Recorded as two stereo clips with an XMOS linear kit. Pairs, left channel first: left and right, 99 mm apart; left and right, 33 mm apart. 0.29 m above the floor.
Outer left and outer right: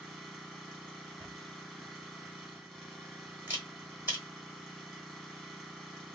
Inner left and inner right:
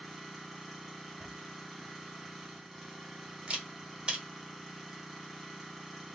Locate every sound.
0.0 s an engine running: 5° left (ahead or behind), 0.9 m
1.2 s a camera shutter: 20° right (ahead or behind), 1.3 m